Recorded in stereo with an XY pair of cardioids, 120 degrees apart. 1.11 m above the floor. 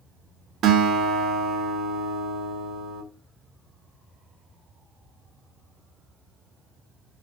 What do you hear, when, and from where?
0.6 s a guitar: 60° right, 2 m